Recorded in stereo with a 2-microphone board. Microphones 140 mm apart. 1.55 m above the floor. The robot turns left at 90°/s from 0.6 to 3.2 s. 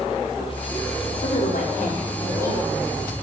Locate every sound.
1.2 s a woman speaking: 130° left, 4 m; by 3.1 s 45° right, 4 m